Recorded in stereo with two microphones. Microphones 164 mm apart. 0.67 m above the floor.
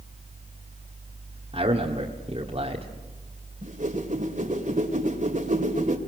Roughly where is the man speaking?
Right.